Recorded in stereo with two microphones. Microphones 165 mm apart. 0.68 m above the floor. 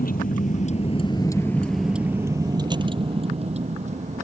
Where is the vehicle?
60° left (ahead or behind); by 4.2 s 45° right (ahead or behind).